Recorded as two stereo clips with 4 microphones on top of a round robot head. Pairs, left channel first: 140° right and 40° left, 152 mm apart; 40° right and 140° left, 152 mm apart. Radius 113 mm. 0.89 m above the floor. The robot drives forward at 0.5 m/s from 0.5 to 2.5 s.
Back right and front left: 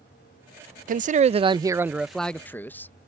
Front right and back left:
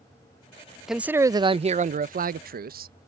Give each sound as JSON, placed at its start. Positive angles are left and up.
{"t": 0.9, "sound": "a man speaking", "azimuth_deg": 50}